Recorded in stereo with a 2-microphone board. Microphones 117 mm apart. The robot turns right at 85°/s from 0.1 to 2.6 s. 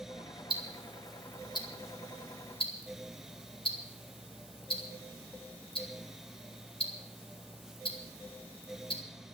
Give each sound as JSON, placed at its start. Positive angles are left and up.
{"t": 0.5, "sound": "ticking", "side_deg": -50, "distance_m": 2.0}